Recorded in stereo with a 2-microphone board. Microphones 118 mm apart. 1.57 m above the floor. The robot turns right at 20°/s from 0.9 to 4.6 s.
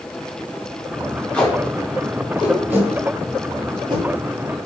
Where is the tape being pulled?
10° left (ahead or behind), 4.5 m; by 4.0 s 45° right (ahead or behind), 4.5 m.